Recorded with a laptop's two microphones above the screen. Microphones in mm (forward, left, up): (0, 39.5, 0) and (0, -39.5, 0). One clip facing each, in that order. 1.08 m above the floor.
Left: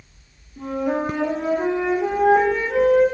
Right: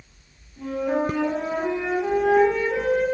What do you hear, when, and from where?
0.6 s a flute: 60° left (ahead or behind), 2 m